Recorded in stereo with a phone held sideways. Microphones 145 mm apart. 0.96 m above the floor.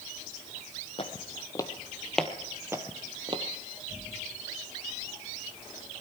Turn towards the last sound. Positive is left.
turn(degrees=-40)  # may be behind; listen again after turning